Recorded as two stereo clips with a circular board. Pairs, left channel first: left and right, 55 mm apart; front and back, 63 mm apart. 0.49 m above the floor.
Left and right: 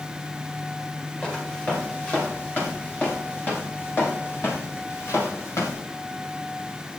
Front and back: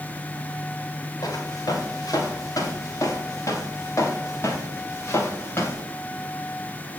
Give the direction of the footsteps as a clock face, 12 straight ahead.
11 o'clock.